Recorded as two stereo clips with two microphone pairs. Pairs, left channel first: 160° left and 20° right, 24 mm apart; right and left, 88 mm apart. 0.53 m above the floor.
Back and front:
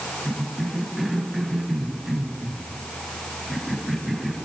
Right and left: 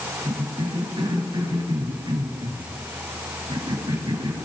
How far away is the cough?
About 3.5 m.